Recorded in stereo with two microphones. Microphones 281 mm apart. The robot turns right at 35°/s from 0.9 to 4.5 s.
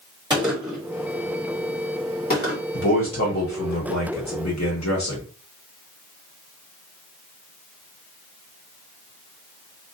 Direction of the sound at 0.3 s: 15° right (ahead or behind).